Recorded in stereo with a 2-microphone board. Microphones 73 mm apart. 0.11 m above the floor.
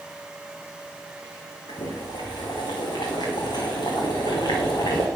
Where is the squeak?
I don't hear a squeak.